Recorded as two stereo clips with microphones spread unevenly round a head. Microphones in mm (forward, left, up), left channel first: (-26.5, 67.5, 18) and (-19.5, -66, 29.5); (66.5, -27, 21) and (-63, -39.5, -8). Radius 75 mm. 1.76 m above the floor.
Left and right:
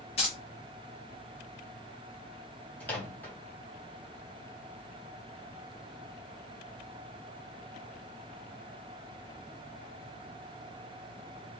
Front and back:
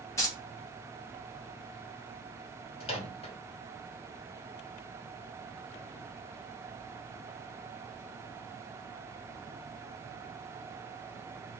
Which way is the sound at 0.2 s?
50° left.